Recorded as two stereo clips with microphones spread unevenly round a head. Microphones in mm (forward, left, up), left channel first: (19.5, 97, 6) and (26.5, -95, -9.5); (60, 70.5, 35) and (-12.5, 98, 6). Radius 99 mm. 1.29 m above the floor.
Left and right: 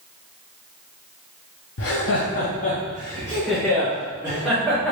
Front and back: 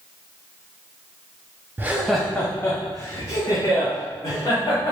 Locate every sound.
1.8 s laughter: 95° left, 0.6 m; by 4.9 s straight ahead, 2 m